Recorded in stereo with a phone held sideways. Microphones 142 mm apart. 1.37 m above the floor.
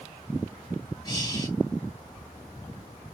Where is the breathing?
30° left (ahead or behind), 2 m.